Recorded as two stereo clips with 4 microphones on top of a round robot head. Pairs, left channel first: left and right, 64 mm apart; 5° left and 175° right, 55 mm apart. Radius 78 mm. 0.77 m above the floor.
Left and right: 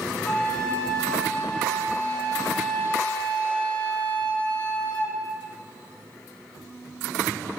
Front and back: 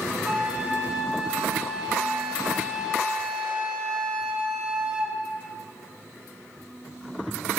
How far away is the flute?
About 0.7 m.